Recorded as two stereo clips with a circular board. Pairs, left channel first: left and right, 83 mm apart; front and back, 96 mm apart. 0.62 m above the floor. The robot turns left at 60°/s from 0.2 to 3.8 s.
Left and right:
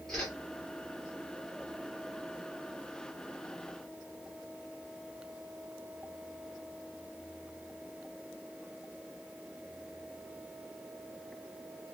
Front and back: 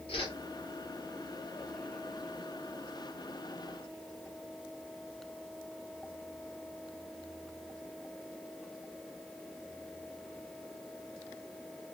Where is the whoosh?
5° left, 1.4 m; by 0.3 s 5° right, 1.4 m.